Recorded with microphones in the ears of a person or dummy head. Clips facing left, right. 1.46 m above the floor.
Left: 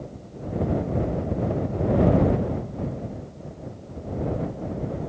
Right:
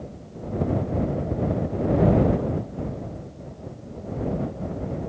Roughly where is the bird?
I don't hear a bird.